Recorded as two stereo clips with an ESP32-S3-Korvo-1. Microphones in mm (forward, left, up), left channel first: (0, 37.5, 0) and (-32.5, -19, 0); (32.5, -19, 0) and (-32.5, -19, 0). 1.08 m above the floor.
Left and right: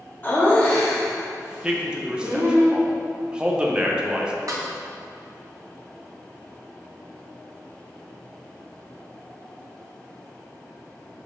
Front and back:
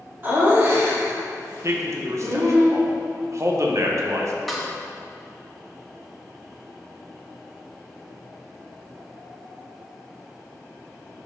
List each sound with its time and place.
0.2 s laughter: 125° left, 2.5 m; by 2.6 s 165° right, 2.5 m
1.6 s a man speaking: 170° left, 0.9 m
4.5 s a snare drum: 85° right, 1.3 m